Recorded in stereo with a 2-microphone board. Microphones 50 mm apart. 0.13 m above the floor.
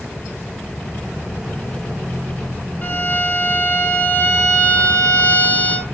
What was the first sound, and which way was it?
A violin, 35° left (ahead or behind).